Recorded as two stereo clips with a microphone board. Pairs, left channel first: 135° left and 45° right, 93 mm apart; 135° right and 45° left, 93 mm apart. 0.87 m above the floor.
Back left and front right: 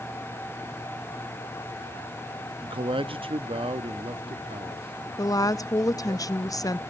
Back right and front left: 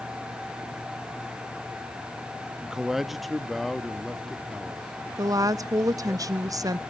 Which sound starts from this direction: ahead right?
A man speaking, at 2.6 s.